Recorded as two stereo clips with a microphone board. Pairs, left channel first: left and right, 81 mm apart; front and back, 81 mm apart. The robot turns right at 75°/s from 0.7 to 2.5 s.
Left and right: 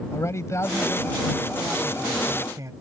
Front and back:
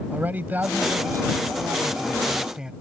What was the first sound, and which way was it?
A man speaking, 120° left.